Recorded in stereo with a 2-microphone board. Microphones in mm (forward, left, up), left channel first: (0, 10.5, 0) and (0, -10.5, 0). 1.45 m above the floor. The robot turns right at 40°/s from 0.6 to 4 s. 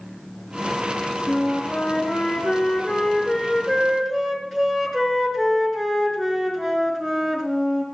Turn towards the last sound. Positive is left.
turn(degrees=175)